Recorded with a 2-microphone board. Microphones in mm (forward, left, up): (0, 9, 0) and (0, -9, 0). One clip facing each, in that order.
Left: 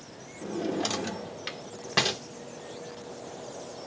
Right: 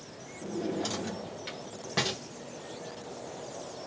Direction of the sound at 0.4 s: 25° left (ahead or behind).